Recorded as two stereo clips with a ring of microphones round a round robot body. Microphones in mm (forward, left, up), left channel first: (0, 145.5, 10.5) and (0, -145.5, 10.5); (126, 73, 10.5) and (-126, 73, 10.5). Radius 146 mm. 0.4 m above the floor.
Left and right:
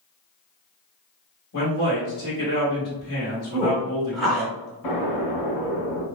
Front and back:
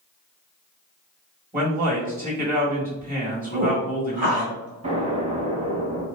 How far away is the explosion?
About 1.1 m.